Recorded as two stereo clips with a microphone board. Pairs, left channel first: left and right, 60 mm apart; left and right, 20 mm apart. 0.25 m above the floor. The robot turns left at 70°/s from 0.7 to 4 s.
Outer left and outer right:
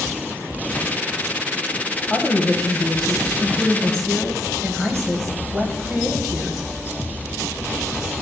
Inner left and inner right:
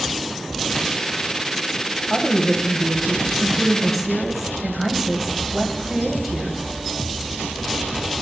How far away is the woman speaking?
About 1.2 m.